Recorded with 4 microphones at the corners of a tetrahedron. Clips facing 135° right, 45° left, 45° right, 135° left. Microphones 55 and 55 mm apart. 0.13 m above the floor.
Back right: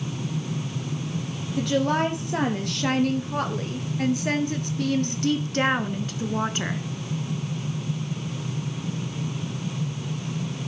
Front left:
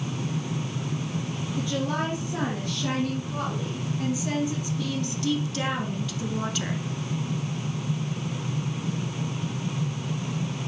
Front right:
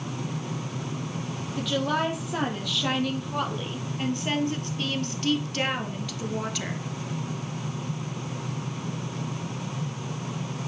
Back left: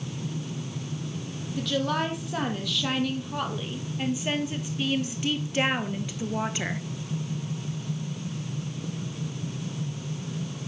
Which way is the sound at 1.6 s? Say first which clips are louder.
Back right 6 dB, front right 1 dB; 130° right.